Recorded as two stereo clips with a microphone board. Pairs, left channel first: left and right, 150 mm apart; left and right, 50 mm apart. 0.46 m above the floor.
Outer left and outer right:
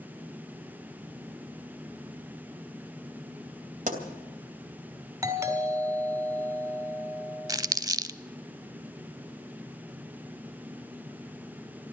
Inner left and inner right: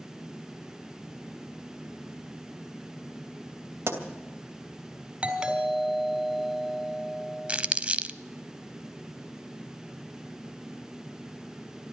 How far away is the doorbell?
About 3.5 m.